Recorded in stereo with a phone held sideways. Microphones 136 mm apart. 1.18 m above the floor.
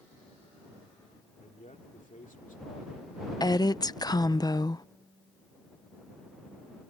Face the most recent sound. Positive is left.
turn(degrees=30)  # may be behind; listen again after turning